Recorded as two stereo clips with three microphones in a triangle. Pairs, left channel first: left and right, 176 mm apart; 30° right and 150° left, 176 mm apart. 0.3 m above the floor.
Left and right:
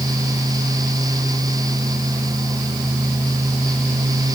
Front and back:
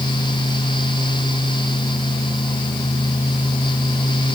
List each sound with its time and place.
Only background noise.